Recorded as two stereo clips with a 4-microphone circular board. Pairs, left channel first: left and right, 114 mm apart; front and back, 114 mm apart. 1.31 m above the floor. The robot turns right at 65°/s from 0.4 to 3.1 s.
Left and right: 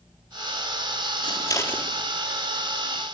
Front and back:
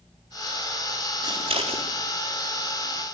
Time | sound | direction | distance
1.2 | scissors | 130° left | 3.5 m